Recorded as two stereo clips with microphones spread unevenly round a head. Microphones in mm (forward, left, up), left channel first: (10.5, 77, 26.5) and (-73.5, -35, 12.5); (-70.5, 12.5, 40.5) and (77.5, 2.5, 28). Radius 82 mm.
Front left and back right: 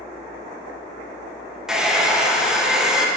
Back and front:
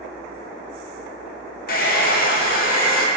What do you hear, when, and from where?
1.7 s a hair dryer: 145° left, 1.1 m